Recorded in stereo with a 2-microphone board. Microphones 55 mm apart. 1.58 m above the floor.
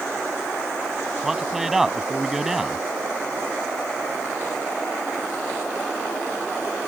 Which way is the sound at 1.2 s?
5° right (ahead or behind).